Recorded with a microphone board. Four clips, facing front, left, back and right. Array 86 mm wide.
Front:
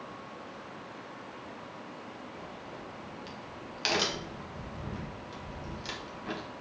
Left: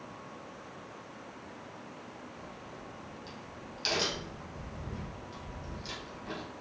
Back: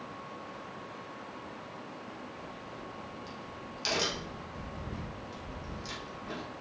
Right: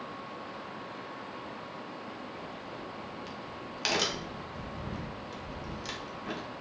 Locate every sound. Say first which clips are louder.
2.4 s a crack: right 5 dB, even; 45° right, 1.0 m